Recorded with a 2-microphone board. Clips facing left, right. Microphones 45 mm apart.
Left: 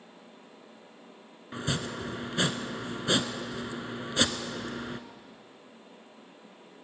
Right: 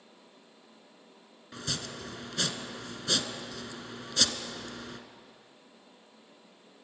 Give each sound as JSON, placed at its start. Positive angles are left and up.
{"t": 1.5, "sound": "chopping", "side_deg": 25, "distance_m": 1.0}